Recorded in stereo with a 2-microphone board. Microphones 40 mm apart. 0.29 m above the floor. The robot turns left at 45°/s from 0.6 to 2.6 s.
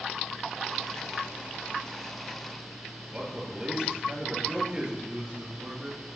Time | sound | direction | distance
3.1 | a man speaking | 25° right (ahead or behind) | 4 m
5.0 | a man speaking | 40° right (ahead or behind) | 2.5 m